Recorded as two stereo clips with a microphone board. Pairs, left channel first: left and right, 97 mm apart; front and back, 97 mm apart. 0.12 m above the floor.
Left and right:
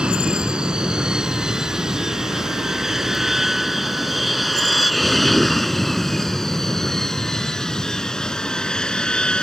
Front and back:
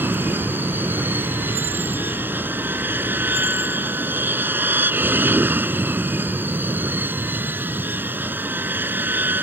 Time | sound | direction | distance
0.0 | an aircraft | 155° right | ?